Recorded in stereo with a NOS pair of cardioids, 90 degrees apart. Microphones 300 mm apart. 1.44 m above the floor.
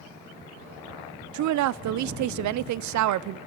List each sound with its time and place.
1.3 s a woman speaking: 70° right, 0.6 m